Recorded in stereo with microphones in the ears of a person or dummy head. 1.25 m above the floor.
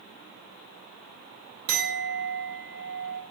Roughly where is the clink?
Right.